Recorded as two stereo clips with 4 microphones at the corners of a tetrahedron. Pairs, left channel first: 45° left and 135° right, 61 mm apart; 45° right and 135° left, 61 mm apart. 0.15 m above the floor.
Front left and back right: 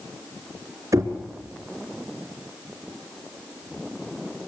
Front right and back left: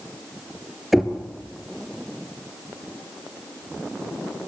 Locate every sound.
0.9 s knocking: 135° right, 2 m